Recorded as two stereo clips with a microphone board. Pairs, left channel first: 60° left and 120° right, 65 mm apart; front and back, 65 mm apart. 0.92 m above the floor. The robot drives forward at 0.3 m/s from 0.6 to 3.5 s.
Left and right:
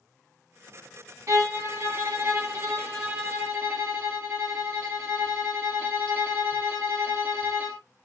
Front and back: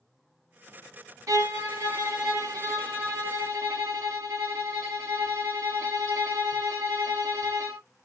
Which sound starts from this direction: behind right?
A violin, at 1.3 s.